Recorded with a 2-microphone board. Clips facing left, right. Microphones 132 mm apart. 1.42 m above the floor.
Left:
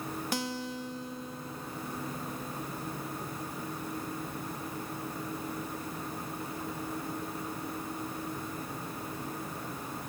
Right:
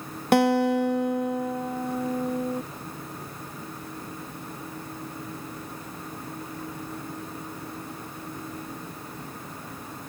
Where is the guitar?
65° right (ahead or behind).